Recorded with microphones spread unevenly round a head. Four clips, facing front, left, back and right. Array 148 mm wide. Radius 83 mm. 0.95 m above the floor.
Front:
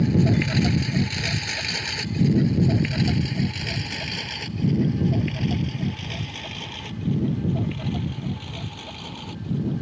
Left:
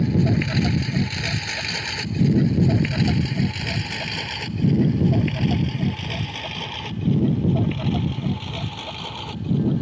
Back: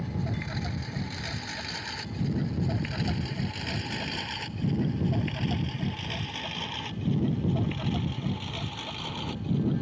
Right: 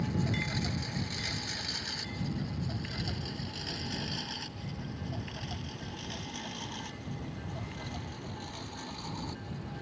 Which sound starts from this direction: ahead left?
A lawn mower, at 0.0 s.